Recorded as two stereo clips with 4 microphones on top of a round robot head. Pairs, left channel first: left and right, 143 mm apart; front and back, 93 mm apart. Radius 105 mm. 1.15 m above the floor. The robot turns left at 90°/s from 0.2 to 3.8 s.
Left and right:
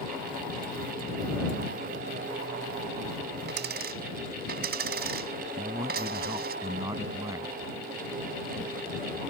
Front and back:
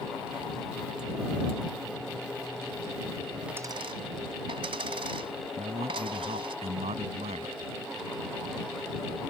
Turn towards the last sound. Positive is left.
turn(degrees=-165)